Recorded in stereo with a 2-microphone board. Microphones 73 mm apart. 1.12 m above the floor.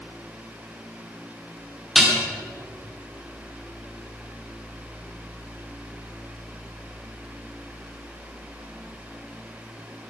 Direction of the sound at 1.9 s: 5° right (ahead or behind).